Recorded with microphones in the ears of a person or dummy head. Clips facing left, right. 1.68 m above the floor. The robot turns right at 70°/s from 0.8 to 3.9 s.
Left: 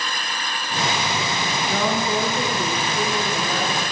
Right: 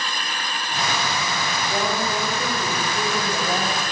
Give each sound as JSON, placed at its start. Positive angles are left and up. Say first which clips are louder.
{"t": 1.7, "sound": "a woman speaking", "louder": "left 2 dB", "azimuth_deg": 80, "distance_m": 1.1}